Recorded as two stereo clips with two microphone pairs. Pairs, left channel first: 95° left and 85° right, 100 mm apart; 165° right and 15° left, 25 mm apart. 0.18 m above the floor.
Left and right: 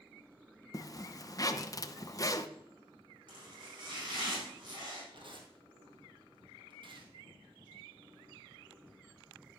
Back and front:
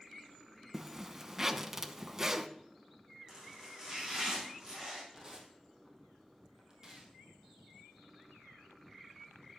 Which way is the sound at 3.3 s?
45° right.